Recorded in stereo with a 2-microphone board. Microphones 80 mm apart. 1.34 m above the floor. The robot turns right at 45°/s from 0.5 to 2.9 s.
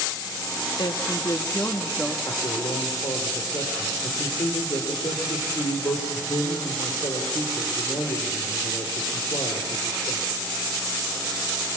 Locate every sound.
0.8 s a woman speaking: 115° left, 1.8 m; by 2.1 s 175° left, 1.8 m
2.2 s a man speaking: 45° left (ahead or behind), 3.5 m; by 10.3 s 75° left (ahead or behind), 3.5 m